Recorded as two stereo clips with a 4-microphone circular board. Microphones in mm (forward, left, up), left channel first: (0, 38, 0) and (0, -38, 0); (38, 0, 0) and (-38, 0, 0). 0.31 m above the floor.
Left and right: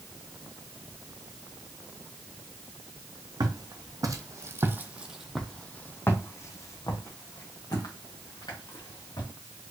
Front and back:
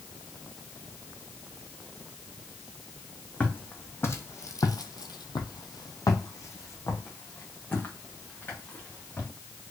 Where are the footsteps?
65° right, 1.2 m; by 9.3 s 65° left, 2.5 m.